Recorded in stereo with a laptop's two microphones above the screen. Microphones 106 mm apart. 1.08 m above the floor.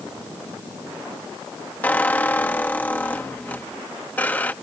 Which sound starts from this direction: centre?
A squeak, at 1.8 s.